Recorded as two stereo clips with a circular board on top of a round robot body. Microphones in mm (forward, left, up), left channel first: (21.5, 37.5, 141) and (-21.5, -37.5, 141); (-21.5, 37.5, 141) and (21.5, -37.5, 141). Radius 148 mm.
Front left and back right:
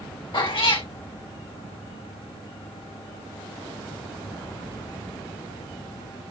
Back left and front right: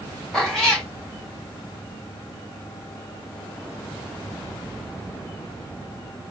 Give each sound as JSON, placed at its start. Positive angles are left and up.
{"t": 0.3, "sound": "a cat meowing", "azimuth_deg": 35, "distance_m": 1.9}